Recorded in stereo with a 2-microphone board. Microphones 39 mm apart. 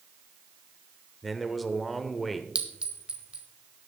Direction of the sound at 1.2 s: 5° left (ahead or behind).